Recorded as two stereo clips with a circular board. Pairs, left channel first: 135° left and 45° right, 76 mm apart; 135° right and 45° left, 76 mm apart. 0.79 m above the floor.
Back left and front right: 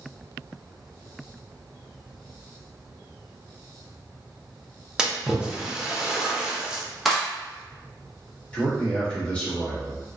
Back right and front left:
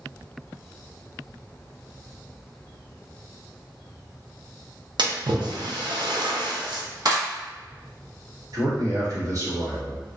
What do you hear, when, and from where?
5.0 s a splash: 35° left, 0.6 m
7.0 s a clap: 45° left, 1.0 m
8.5 s a man speaking: 70° left, 1.4 m